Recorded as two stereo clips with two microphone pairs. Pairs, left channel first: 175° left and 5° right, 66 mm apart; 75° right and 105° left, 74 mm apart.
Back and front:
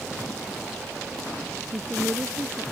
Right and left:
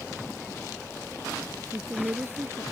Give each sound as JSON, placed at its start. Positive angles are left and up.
{"t": 1.7, "sound": "a woman speaking", "azimuth_deg": 55}